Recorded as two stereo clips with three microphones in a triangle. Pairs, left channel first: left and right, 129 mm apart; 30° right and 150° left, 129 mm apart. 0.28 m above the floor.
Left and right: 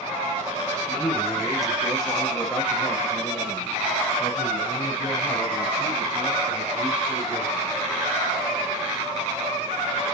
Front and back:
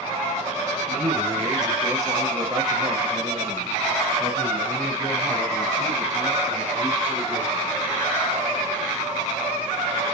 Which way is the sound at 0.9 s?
165° right.